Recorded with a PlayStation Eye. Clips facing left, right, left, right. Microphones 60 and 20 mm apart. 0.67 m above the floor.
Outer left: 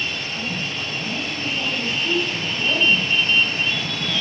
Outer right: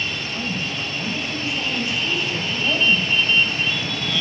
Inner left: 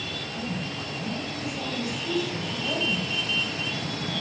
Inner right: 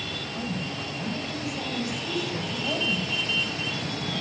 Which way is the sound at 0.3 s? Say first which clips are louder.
Outer right 1 dB, even; 10° right (ahead or behind).